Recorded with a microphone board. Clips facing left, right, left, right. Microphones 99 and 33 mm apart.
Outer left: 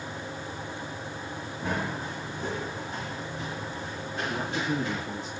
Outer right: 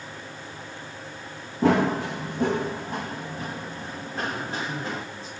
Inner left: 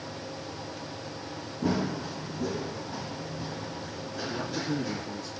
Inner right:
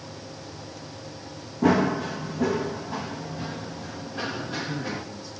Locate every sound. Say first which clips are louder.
1.6 s running footsteps: outer right 12 dB, inner right 8 dB; 80° right, 1.4 m; by 5.0 s 35° right (ahead or behind), 4 m
4.3 s a man speaking: outer left 2 dB, even; 65° left (ahead or behind), 3 m